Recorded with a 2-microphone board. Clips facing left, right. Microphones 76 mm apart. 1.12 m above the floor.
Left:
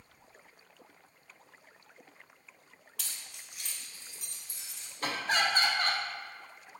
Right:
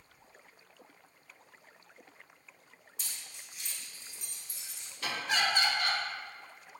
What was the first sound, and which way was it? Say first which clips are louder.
Keys jangling: left 1 dB; 75° left (ahead or behind).